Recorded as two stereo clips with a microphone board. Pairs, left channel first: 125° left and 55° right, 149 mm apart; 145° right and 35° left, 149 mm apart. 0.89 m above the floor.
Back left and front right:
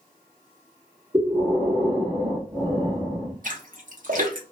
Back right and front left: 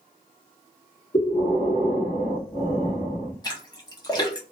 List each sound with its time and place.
1.1 s breathing: 110° right, 1.4 m
3.4 s a splash: 85° right, 0.9 m